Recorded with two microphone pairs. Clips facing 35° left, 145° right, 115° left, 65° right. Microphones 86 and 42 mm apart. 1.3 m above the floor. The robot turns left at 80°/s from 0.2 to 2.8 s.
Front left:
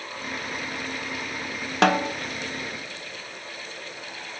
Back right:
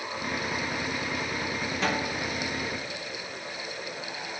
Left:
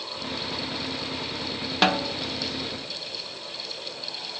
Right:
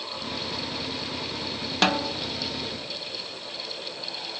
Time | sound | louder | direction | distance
1.8 | a snare drum | front left 10 dB, left 1 dB | 30° left | 0.8 m